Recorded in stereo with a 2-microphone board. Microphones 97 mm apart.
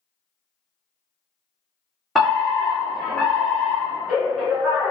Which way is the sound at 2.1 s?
Centre (ahead or behind).